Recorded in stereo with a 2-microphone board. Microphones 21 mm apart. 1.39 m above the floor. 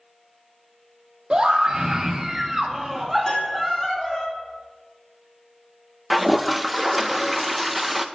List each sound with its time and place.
1.3 s a scream: 40° right (ahead or behind), 2.5 m; by 4.2 s 20° left (ahead or behind), 2.5 m
3.2 s a piano: 30° left (ahead or behind), 5.5 m
6.1 s a toilet flushing: centre (ahead or behind), 0.6 m